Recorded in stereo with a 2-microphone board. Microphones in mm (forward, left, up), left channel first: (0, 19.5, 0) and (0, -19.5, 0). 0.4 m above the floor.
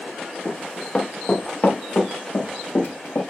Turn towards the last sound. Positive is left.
turn(degrees=50)  # may be behind; listen again after turning